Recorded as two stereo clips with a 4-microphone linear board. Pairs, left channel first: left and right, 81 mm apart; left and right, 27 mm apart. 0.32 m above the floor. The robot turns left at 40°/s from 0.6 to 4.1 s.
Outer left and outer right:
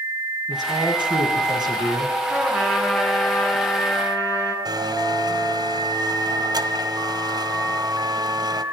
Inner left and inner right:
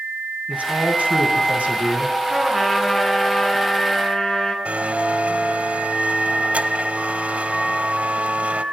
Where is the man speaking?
65° right, 3 m; by 2.2 s 130° right, 3 m.